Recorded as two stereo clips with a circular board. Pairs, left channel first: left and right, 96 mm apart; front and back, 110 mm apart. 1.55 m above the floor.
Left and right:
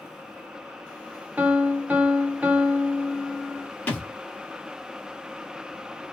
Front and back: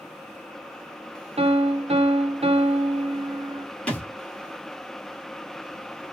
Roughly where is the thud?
Ahead left.